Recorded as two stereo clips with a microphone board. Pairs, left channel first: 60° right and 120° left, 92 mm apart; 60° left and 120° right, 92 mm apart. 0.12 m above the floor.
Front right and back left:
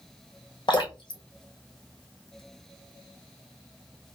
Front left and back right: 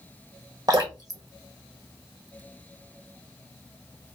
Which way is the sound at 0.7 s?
80° right.